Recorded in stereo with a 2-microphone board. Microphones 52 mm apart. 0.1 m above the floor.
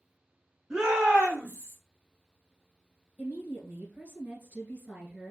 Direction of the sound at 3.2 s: 30° right (ahead or behind).